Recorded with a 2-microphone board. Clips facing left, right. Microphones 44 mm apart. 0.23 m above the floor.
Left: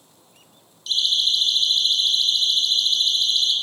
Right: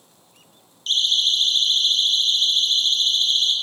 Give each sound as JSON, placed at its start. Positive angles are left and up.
{"t": 0.9, "sound": "a siren", "side_deg": -45, "distance_m": 10.0}